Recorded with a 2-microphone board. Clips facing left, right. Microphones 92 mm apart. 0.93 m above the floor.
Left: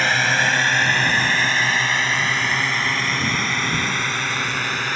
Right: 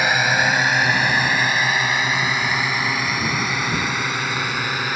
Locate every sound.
0.0 s a drone: 10° right (ahead or behind)